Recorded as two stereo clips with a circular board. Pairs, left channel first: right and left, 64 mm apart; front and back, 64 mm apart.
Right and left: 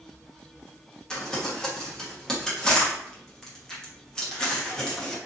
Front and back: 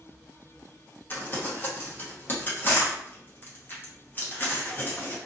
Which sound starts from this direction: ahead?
Crumpling, at 1.1 s.